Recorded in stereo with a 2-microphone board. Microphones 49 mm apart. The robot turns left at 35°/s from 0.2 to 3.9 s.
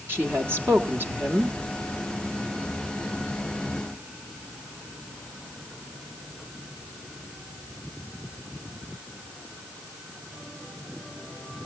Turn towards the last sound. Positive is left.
turn(degrees=150)